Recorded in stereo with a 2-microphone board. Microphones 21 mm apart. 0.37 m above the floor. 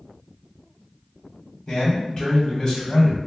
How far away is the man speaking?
About 1.9 m.